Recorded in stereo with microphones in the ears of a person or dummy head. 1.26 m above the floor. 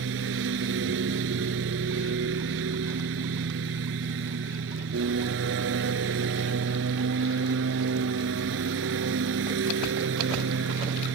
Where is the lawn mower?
70° right (ahead or behind).